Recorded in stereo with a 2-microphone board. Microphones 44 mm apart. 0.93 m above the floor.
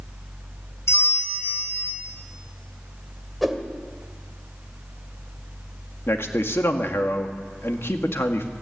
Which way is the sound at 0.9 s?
85° left.